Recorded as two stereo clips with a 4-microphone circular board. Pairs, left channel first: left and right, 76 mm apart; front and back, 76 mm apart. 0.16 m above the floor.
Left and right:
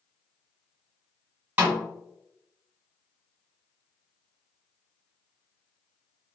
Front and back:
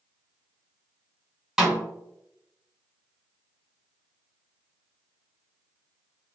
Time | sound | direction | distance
1.6 | a snare drum | 105° right | 1.5 m